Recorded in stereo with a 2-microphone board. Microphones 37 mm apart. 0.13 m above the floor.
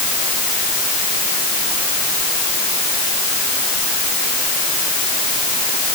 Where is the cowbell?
No cowbell in this recording.